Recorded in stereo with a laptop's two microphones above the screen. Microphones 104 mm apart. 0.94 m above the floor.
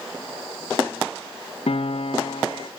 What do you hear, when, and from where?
1.7 s a piano: 70° left (ahead or behind), 0.8 m